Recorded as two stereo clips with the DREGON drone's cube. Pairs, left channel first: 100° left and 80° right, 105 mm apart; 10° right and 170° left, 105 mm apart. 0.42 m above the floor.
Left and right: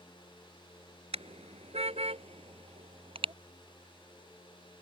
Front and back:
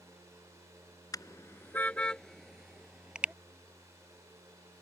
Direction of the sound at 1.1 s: 65° right.